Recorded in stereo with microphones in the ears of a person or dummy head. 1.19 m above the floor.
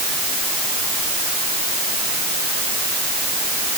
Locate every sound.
Only background noise.